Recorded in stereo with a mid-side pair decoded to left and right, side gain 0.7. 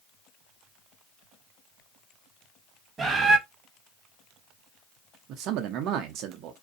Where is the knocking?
No knocking in this recording.